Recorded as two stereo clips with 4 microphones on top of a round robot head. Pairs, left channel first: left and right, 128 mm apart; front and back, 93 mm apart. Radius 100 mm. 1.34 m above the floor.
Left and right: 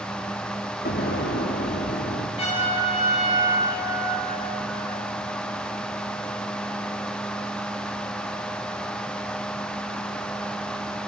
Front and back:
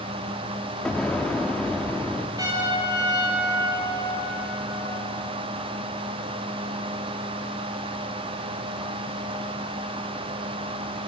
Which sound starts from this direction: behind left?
A trumpet, at 2.4 s.